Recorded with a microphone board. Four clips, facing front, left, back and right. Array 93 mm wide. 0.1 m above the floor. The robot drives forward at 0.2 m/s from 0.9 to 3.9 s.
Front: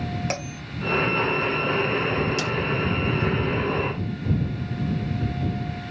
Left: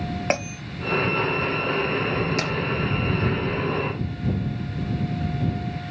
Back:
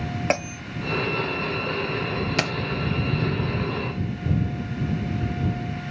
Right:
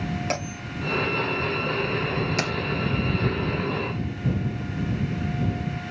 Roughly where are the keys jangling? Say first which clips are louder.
Even, back 1 dB; behind.